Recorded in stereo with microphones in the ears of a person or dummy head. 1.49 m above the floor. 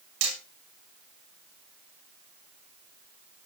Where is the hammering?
70° right (ahead or behind), 7.5 m.